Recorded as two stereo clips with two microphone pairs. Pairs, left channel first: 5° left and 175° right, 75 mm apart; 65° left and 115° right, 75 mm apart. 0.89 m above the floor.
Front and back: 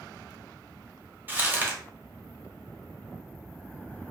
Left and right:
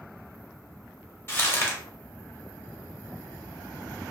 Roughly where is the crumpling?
Behind left.